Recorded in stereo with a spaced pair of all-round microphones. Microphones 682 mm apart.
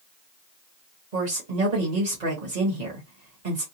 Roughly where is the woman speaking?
Right.